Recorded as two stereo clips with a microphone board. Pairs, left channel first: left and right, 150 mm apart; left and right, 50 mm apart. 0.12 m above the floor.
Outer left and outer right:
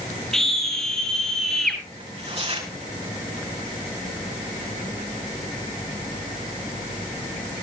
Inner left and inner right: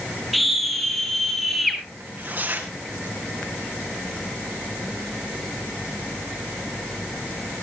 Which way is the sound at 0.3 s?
5° left (ahead or behind).